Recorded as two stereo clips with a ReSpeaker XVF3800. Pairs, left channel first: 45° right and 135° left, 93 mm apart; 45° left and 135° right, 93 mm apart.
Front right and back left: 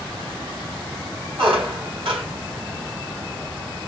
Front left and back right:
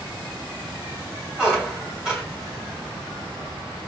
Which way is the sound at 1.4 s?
145° left.